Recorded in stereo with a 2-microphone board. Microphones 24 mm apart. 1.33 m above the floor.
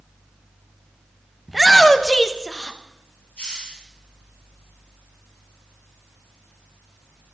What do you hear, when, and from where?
1.5 s a shout: centre (ahead or behind), 1.1 m; by 2.8 s 40° left (ahead or behind), 0.9 m
3.4 s a hiss: 60° left (ahead or behind), 5.5 m